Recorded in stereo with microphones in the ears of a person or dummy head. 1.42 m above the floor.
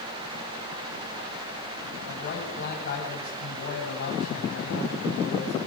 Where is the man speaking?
55° left (ahead or behind), 9.5 m.